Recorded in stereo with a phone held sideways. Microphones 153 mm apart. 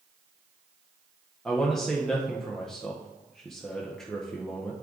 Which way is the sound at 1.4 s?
5° left (ahead or behind).